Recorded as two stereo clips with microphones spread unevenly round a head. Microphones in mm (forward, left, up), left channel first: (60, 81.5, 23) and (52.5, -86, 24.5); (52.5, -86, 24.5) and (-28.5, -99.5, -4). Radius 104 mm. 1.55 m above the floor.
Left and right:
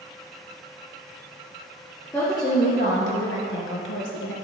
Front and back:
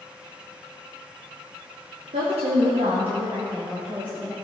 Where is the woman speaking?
170° left, 1.1 m; by 4.3 s 80° left, 1.3 m.